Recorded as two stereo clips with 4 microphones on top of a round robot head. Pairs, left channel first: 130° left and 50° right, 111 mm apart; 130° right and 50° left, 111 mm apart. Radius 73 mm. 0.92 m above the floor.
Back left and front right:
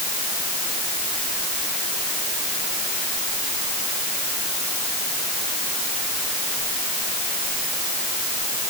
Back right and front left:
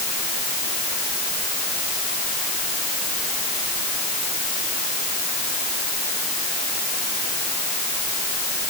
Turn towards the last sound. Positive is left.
No sound to turn to.